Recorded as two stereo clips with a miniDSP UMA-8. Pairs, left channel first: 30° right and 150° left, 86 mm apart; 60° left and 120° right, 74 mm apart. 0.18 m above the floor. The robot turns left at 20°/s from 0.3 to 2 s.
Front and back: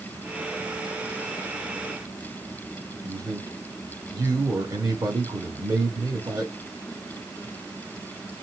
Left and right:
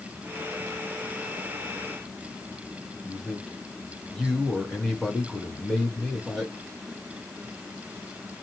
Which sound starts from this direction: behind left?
A man speaking, at 3.0 s.